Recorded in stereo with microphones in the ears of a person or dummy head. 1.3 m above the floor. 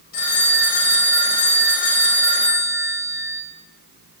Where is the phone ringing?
50° left (ahead or behind), 1.2 m.